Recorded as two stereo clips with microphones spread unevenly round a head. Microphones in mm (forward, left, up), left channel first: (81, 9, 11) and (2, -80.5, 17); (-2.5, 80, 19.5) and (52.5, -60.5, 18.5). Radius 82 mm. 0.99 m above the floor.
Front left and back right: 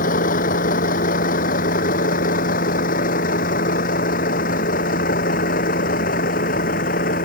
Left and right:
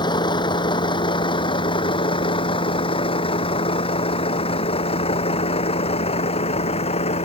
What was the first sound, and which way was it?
A vehicle, 50° left.